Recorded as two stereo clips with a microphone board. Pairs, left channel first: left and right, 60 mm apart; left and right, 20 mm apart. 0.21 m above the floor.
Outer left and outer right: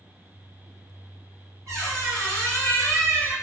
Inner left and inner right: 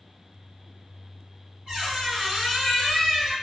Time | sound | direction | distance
1.7 | a squeak | 55° right (ahead or behind) | 1.7 m